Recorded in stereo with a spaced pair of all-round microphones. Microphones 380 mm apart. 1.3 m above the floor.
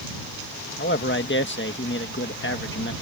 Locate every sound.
0.8 s a man speaking: 30° left (ahead or behind)